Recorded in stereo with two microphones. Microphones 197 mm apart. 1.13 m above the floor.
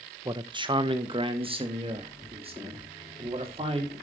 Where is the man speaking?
20° right (ahead or behind), 0.8 m; by 3.9 s 30° right (ahead or behind), 3 m.